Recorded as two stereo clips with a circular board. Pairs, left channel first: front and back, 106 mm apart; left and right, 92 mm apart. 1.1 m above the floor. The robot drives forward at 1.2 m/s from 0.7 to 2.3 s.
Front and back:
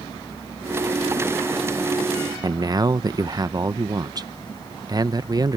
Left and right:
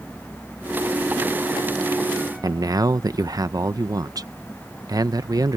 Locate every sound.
2.4 s a man speaking: 130° right